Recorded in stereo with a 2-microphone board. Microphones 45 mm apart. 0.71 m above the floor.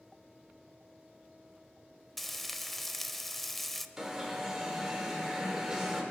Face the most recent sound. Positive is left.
turn(degrees=-10)  # may be behind; listen again after turning